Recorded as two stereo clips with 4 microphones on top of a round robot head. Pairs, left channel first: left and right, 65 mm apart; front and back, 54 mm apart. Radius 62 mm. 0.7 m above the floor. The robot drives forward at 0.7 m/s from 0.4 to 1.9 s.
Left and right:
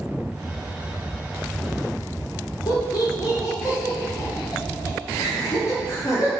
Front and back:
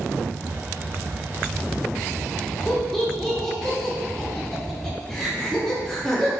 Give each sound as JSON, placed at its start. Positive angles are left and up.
{"t": 2.7, "sound": "laughter", "azimuth_deg": 85, "distance_m": 1.6}